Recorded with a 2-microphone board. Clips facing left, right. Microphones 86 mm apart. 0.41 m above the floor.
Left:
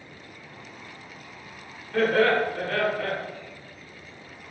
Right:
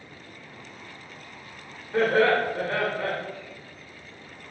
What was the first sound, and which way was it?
Laughter, 25° right (ahead or behind).